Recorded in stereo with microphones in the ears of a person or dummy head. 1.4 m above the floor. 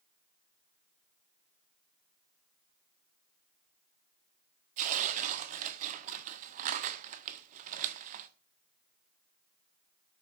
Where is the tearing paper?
45° right (ahead or behind), 1.4 m.